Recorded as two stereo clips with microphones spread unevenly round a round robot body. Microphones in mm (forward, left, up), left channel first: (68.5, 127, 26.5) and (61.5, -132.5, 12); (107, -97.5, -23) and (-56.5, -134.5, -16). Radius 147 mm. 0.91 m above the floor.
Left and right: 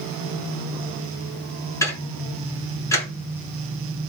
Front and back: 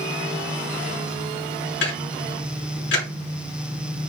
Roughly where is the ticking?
Ahead.